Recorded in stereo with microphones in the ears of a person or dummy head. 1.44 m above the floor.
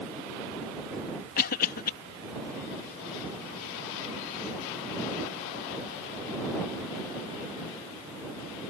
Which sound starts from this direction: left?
A cough, at 1.4 s.